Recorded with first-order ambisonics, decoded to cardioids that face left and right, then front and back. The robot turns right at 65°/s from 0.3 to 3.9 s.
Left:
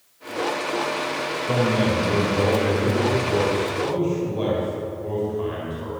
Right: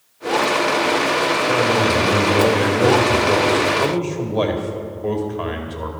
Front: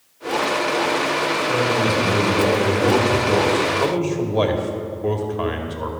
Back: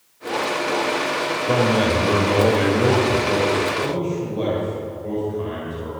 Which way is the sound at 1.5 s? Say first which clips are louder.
Right 1 dB, back 4 dB; 160° left.